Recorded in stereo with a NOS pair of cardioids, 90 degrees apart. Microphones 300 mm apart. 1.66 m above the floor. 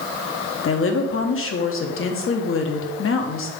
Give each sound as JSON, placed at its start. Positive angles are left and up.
{"t": 0.6, "sound": "a woman speaking", "azimuth_deg": 45, "distance_m": 1.2}